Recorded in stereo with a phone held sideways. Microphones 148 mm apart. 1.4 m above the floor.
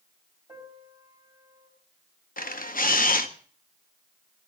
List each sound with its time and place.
0.5 s a piano: 30° right (ahead or behind), 4 m
2.4 s a camera shutter: 65° left (ahead or behind), 0.8 m